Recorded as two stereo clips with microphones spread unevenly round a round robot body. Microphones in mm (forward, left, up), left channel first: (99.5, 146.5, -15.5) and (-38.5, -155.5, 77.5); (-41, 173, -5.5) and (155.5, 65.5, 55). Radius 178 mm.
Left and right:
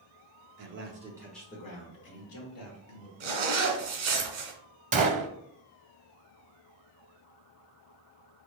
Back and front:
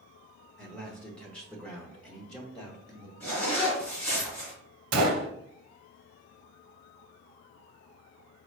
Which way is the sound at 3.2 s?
125° right.